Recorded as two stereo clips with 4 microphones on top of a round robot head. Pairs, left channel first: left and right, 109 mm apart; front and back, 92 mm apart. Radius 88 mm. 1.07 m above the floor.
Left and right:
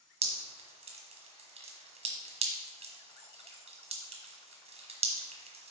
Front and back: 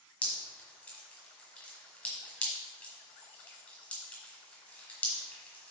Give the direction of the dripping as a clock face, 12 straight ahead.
3 o'clock.